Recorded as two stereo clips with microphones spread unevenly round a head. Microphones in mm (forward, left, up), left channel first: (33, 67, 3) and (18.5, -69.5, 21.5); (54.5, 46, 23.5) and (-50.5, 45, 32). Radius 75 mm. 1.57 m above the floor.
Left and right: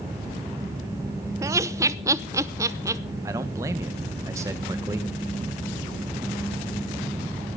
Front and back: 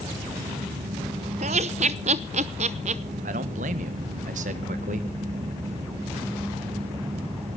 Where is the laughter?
160° right, 0.7 m.